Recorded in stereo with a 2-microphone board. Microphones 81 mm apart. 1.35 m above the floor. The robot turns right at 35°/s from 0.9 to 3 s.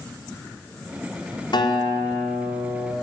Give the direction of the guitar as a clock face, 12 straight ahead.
8 o'clock.